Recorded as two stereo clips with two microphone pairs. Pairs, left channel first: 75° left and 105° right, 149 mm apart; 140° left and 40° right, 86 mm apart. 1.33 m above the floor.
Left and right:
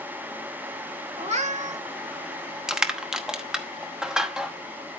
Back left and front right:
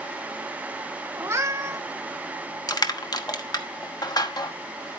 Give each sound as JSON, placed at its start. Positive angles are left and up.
{"t": 1.2, "sound": "a cat meowing", "azimuth_deg": -90, "distance_m": 1.6}
{"t": 2.7, "sound": "crushing", "azimuth_deg": 165, "distance_m": 1.0}